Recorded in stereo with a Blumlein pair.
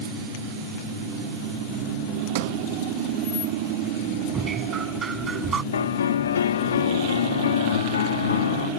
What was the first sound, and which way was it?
A sliding door, 50° right.